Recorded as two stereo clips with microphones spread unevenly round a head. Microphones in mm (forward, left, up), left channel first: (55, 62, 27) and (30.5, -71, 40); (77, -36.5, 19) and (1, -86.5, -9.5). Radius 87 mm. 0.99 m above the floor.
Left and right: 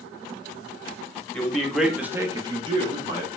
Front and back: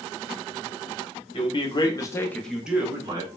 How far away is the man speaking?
About 1.3 m.